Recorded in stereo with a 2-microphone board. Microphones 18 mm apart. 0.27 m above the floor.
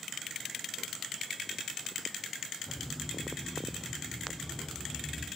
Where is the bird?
35° left (ahead or behind), 5.5 m.